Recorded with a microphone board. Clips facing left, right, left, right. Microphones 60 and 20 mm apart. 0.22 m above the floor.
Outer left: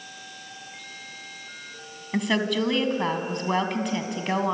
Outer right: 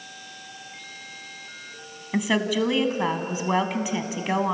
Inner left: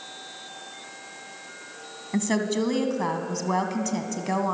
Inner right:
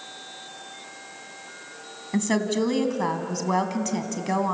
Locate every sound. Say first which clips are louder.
2.1 s a woman speaking: outer right 1 dB, inner right 1 dB; 5° right (ahead or behind), 1.9 m